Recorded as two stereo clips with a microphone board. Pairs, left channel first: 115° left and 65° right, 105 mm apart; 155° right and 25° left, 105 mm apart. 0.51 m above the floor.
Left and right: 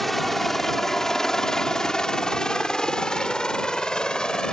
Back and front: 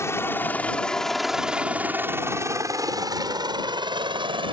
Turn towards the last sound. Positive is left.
turn(degrees=30)